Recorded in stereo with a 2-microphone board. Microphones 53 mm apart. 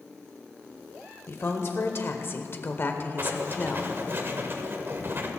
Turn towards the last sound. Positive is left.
turn(degrees=-45)  # may be behind; listen again after turning